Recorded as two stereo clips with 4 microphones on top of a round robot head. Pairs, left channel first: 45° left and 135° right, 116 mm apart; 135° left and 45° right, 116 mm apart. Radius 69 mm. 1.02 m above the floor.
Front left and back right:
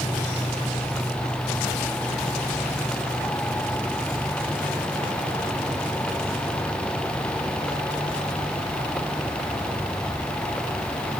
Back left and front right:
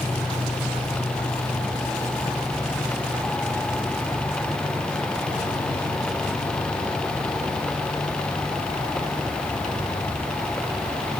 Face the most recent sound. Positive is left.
No sound to turn to.